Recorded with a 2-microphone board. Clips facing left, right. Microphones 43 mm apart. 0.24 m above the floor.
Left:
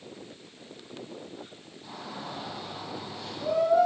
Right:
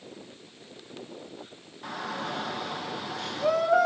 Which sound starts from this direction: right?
A shout, at 1.8 s.